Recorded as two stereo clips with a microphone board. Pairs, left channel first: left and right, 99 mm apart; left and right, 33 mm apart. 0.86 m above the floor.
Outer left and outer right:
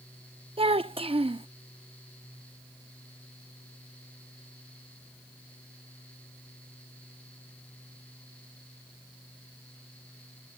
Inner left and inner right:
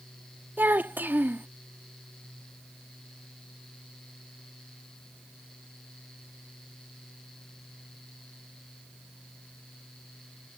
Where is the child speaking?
75° right (ahead or behind).